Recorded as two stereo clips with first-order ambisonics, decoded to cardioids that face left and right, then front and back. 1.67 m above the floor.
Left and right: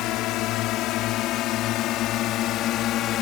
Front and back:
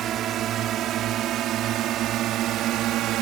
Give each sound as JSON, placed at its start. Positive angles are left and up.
{"t": 0.0, "sound": "a drone", "azimuth_deg": 125}